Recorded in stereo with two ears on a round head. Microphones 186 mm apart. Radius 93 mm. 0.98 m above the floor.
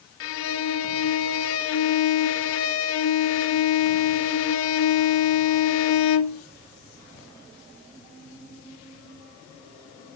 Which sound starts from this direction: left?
A violin, at 0.2 s.